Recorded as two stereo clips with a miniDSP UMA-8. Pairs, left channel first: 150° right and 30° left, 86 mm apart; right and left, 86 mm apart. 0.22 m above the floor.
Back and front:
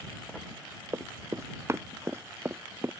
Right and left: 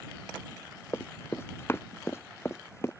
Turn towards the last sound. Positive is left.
turn(degrees=-30)